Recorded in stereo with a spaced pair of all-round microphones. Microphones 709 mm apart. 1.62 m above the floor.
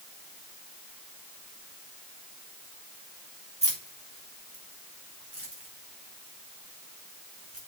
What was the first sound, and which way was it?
Keys jangling, 10° right (ahead or behind).